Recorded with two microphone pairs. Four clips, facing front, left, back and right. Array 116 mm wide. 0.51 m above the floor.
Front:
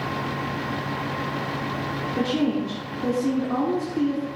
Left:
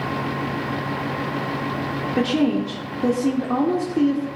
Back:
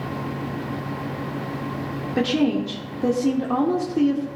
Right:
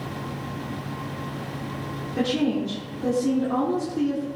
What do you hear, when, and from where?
2.2 s a woman speaking: 140° left, 1.2 m